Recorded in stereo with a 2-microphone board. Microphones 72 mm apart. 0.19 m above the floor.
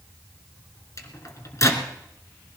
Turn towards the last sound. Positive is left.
turn(degrees=50)  # may be behind; listen again after turning